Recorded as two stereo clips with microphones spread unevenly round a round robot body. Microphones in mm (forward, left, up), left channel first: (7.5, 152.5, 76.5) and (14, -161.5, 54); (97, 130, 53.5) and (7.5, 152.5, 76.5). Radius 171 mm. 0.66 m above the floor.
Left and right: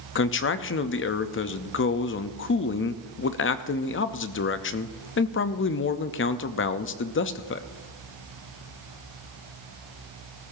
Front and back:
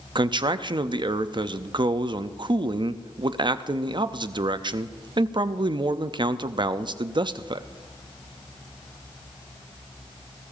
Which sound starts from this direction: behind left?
A man speaking, at 0.1 s.